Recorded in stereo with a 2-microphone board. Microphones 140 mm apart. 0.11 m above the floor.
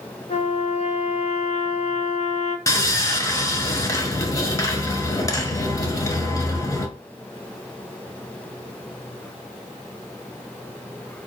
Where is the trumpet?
55° left (ahead or behind), 1.0 m.